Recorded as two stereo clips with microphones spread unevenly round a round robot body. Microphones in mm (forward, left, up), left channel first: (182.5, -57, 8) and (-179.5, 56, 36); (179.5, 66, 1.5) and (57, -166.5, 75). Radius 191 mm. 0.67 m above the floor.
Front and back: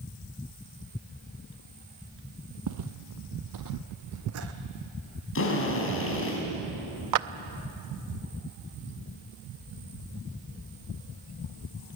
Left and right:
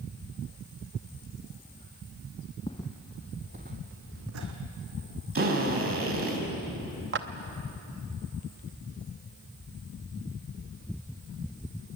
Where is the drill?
75° right, 4.5 m.